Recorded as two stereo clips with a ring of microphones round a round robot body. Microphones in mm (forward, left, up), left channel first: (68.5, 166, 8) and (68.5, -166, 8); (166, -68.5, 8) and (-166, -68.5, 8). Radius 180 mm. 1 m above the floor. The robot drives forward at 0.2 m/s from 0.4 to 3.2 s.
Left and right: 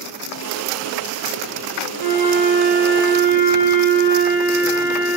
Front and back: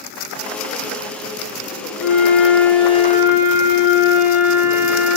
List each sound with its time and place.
2.0 s a flute: 85° left, 1.5 m; by 5.2 s 95° left, 1.5 m